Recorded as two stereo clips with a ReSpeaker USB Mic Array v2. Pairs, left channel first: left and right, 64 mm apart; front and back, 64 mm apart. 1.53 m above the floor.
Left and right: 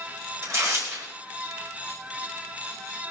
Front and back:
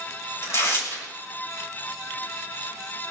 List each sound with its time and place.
0.4 s tearing paper: 45° right, 6 m